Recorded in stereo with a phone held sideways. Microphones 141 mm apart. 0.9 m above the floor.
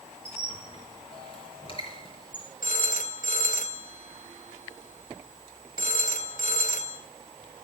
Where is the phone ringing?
70° left (ahead or behind), 3 m.